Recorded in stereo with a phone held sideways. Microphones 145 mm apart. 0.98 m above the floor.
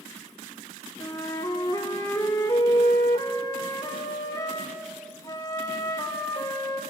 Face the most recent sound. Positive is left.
turn(degrees=25)  # may be behind; listen again after turning